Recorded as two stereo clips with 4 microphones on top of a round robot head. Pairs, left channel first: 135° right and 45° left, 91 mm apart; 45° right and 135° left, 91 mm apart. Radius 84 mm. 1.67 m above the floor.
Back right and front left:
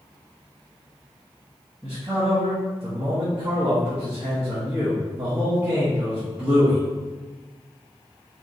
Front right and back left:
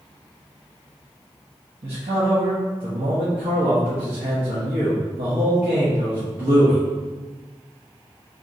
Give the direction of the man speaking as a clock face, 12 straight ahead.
8 o'clock.